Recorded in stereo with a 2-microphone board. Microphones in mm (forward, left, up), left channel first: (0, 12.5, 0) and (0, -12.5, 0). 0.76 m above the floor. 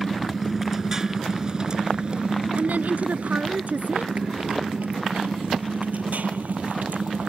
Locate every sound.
0.0 s a motorcycle: 5° right (ahead or behind); by 7.3 s 85° right
2.6 s a woman speaking: 75° right (ahead or behind)